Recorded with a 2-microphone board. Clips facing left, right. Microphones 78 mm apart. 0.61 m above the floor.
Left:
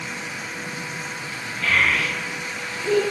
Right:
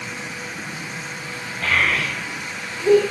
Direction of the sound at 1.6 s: 50° right (ahead or behind).